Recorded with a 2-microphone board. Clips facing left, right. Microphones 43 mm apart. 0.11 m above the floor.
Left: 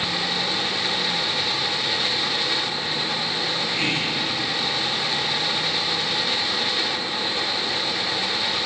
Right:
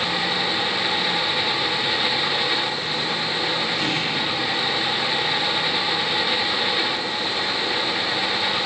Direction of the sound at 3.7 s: 45° left (ahead or behind).